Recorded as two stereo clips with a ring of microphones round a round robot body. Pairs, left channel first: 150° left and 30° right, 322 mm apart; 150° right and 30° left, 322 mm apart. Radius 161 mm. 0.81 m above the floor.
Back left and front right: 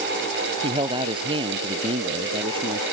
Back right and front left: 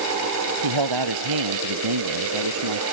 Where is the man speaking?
45° left.